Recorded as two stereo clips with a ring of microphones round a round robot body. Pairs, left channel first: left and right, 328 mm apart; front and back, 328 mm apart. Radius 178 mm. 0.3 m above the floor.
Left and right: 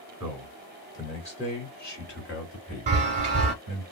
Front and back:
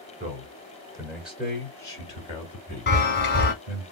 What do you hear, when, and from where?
0.2 s a man speaking: 175° right, 1.5 m; by 3.9 s 55° left, 2.5 m
2.9 s a chime: 35° right, 0.9 m